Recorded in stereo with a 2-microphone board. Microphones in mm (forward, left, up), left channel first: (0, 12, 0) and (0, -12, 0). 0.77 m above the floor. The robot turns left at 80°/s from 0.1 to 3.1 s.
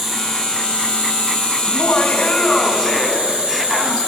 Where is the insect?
175° left, 3 m; by 4.1 s 65° right, 3 m.